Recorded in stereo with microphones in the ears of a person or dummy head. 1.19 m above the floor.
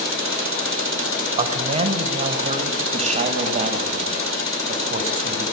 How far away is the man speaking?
About 6 m.